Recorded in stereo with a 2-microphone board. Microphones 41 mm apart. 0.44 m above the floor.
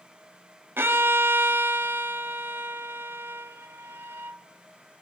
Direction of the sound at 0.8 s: 80° right.